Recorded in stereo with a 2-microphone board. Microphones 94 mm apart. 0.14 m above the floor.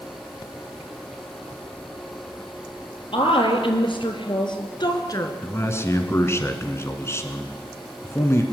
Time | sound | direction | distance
3.1 | a woman speaking | 60° left (ahead or behind) | 3.5 m
5.4 | a man speaking | 25° left (ahead or behind) | 1.7 m